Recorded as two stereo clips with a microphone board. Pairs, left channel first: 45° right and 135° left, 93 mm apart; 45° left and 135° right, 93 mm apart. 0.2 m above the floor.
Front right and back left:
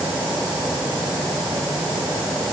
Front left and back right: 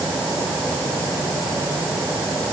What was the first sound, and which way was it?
Only background noise.